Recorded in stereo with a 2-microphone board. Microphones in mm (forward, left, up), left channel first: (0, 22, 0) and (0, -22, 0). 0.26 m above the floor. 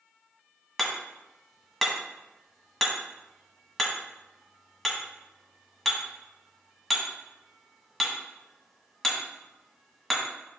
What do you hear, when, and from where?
0.8 s hammering: 5° left (ahead or behind), 1.6 m